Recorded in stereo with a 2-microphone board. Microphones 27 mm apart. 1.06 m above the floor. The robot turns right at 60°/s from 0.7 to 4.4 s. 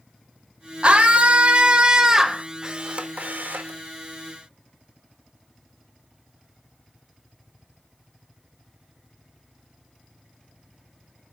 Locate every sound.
0.8 s a scream: 110° right, 1.0 m; by 2.5 s 15° right, 1.0 m
2.6 s a camera shutter: 155° right, 1.0 m; by 3.8 s 85° right, 1.0 m